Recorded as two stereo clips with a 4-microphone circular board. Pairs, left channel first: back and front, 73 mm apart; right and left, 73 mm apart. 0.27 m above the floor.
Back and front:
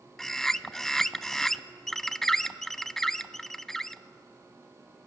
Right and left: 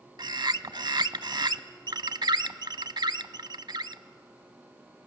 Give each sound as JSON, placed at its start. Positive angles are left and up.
{"t": 0.2, "sound": "a bird", "azimuth_deg": 95, "distance_m": 0.5}